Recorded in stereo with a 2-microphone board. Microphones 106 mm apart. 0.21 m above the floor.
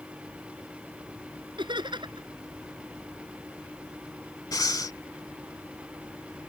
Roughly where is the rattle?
No rattle in this recording.